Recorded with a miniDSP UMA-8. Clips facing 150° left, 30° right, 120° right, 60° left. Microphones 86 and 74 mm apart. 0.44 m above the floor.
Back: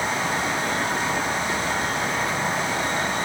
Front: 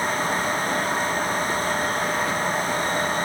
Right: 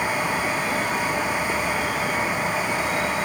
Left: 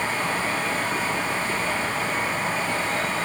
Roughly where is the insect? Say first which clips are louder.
Front 1 dB, right 2 dB; behind right.